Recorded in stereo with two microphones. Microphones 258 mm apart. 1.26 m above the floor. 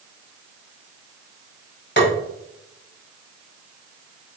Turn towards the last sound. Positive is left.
turn(degrees=45)  # may be behind; listen again after turning